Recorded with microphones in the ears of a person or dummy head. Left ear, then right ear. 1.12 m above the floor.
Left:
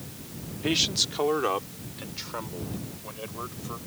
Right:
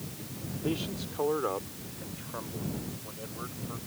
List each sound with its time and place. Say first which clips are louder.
0.6 s a man speaking: left 10 dB; 65° left (ahead or behind); by 3.8 s 85° left